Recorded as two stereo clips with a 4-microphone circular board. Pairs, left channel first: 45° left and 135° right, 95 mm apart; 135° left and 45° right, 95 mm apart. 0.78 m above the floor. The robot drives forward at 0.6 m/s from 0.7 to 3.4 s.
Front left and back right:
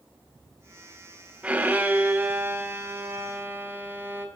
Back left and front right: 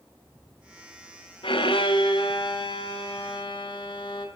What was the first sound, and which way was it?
A violin, 150° left.